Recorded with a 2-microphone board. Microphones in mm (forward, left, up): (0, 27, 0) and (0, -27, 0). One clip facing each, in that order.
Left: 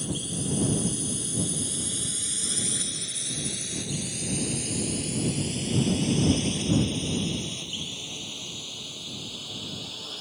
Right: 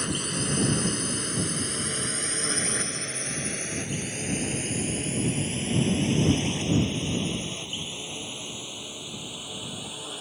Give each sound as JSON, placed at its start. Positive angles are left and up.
{"t": 0.0, "sound": "a drone", "side_deg": -65}